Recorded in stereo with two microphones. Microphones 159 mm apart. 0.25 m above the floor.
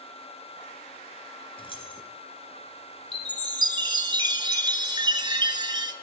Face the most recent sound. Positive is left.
turn(degrees=-30)  # may be behind; listen again after turning